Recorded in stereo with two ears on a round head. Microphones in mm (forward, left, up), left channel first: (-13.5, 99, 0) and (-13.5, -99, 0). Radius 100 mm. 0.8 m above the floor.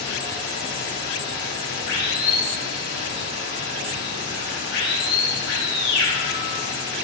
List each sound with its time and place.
0.0 s running water: 70° left (ahead or behind), 3 m